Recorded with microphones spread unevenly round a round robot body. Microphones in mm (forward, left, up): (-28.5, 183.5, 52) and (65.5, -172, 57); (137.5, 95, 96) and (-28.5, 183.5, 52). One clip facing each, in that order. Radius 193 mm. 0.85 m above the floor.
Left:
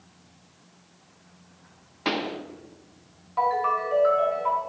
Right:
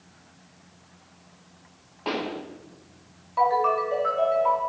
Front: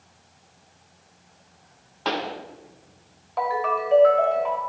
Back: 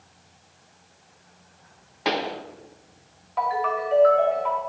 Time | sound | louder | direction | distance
2.0 | a pop | left 1 dB, back 2 dB | 95° left | 0.9 m
3.4 | a ringtone | right 4 dB, front 1 dB | 15° left | 2 m